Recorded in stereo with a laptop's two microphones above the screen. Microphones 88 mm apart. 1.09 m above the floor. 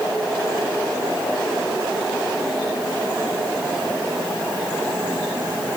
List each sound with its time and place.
Only background noise.